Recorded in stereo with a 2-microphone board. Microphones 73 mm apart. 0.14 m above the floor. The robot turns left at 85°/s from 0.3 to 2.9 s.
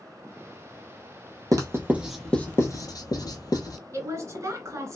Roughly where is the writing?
Right.